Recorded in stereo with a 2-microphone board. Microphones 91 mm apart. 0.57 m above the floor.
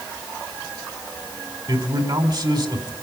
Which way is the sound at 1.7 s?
55° right (ahead or behind).